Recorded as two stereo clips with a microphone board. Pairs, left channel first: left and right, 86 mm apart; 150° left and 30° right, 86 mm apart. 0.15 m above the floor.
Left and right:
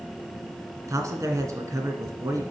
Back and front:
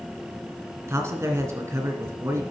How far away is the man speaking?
About 1.9 m.